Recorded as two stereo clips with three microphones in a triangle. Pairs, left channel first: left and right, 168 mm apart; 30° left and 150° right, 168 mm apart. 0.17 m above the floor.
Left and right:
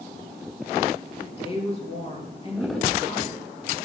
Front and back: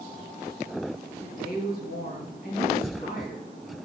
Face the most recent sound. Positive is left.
turn(degrees=40)